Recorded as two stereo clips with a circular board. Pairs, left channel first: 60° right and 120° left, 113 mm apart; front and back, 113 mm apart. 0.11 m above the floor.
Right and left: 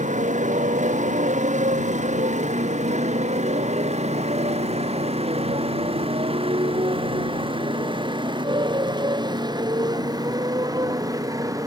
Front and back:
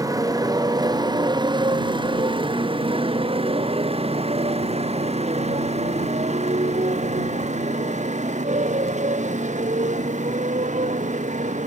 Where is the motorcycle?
120° left; by 11.7 s straight behind.